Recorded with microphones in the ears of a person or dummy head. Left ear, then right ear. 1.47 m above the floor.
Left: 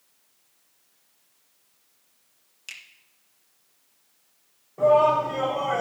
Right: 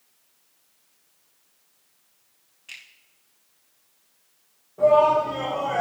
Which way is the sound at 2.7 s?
85° left.